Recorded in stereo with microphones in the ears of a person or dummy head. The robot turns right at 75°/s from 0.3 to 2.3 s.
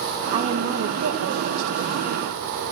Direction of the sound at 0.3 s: 155° right.